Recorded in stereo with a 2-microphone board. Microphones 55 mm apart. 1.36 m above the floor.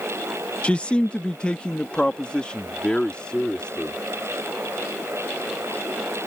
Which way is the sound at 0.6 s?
20° left (ahead or behind).